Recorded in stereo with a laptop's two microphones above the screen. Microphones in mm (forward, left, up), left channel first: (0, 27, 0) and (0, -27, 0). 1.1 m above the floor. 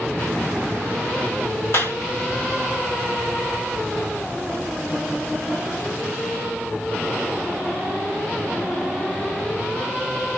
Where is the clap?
55° left (ahead or behind), 1.7 m.